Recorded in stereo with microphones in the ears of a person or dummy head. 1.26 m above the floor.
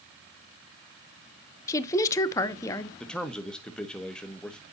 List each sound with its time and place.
1.7 s a woman speaking: 20° left (ahead or behind), 0.8 m
3.0 s a man speaking: 10° left (ahead or behind), 1.2 m